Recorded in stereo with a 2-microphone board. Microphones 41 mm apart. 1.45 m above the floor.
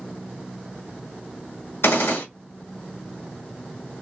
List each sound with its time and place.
1.8 s a gunshot: 85° left, 1.9 m